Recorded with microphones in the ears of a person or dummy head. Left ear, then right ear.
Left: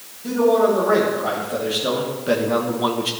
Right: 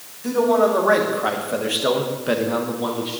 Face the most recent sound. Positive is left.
turn(degrees=45)  # may be behind; listen again after turning